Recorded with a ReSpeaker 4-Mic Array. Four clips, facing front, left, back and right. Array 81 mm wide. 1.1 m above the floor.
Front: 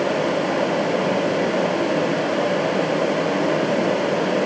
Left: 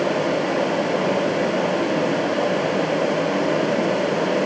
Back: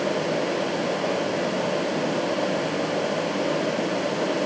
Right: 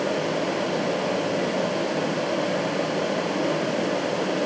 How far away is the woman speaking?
I don't hear a woman speaking.